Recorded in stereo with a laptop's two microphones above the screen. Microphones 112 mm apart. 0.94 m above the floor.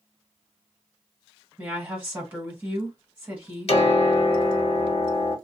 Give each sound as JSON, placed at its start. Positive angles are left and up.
{"t": 1.6, "sound": "a woman speaking", "side_deg": -15, "distance_m": 1.4}
{"t": 3.7, "sound": "a piano", "side_deg": 60, "distance_m": 1.0}